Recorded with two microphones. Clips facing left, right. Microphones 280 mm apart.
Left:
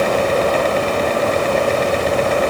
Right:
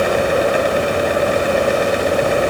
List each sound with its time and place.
Only background noise.